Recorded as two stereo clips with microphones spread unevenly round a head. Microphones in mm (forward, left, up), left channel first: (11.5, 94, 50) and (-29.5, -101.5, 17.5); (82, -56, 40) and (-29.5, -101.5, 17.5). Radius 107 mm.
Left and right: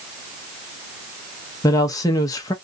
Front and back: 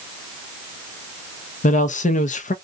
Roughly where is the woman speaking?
Ahead.